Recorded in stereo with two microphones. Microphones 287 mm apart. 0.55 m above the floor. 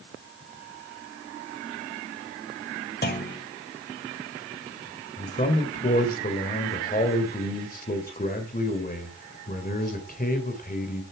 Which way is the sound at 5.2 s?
30° left (ahead or behind).